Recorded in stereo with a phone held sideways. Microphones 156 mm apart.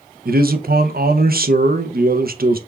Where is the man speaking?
75° right (ahead or behind), 0.5 m.